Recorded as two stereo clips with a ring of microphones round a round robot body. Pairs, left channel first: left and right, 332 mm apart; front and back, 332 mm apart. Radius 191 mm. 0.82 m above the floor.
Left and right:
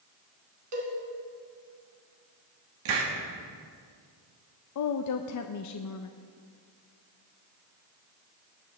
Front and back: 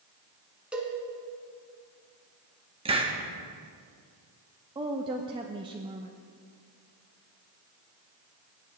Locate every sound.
0.7 s a cowbell: 95° right, 2.5 m
2.9 s a hiss: 105° right, 1.5 m
4.8 s a woman speaking: 105° left, 0.5 m